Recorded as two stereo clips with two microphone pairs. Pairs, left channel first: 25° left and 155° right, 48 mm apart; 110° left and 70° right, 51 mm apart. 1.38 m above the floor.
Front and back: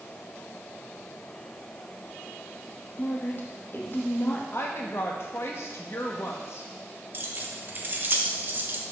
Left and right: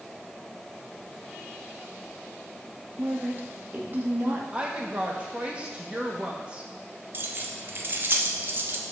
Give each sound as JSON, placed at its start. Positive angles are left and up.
{"t": 3.0, "sound": "a woman speaking", "azimuth_deg": -20, "distance_m": 1.6}
{"t": 4.5, "sound": "a woman speaking", "azimuth_deg": -5, "distance_m": 1.5}
{"t": 7.1, "sound": "keys jangling", "azimuth_deg": -110, "distance_m": 1.0}